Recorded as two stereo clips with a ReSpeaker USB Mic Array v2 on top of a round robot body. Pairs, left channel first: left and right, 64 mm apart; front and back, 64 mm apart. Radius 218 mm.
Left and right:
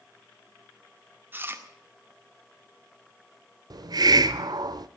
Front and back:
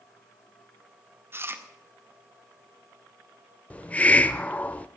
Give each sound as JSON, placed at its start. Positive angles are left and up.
{"t": 1.3, "sound": "chewing", "azimuth_deg": -140, "distance_m": 2.0}
{"t": 3.7, "sound": "a hiss", "azimuth_deg": -70, "distance_m": 0.5}